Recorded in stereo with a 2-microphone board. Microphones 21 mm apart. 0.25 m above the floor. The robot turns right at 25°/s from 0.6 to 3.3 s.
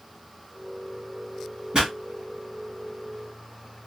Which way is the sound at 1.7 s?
45° right (ahead or behind).